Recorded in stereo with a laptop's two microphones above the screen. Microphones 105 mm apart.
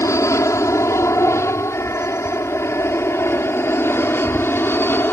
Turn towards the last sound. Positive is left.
turn(degrees=20)  # may be behind; listen again after turning